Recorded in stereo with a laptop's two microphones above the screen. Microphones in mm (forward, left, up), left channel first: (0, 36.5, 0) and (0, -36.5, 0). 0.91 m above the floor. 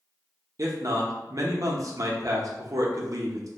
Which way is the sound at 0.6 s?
50° right (ahead or behind).